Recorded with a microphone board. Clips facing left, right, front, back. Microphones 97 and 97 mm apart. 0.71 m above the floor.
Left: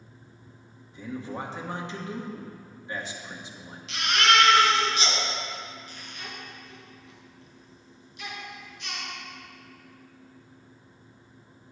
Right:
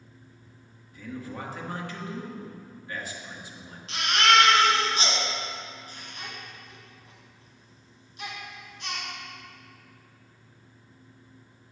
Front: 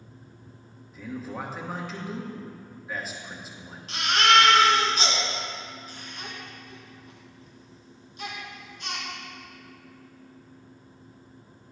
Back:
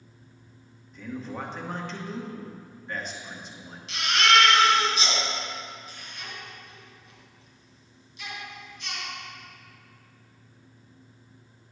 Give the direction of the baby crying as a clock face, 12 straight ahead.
1 o'clock.